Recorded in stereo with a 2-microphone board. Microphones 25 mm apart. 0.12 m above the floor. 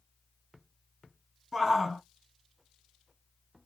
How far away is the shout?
About 1.3 m.